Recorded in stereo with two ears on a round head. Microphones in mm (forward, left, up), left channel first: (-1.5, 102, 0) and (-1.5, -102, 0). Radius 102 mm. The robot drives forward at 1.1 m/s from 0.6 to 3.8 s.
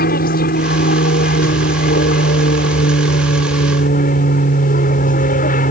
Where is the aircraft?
40° left (ahead or behind).